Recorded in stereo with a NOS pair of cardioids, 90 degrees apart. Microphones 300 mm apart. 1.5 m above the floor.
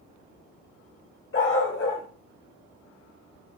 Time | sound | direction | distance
1.3 | a dog barking | 45° left | 3 m